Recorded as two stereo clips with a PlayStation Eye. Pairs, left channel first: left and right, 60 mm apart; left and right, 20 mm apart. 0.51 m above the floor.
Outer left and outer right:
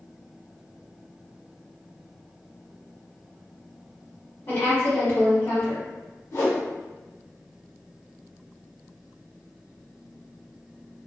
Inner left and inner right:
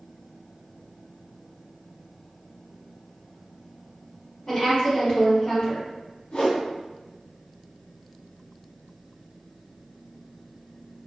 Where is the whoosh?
60° left (ahead or behind), 0.9 m.